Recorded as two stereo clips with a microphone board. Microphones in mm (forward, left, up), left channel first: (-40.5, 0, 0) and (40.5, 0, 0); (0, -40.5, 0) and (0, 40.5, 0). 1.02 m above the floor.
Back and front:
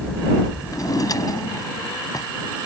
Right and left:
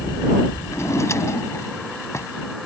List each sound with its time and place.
0.7 s a drawer: 140° right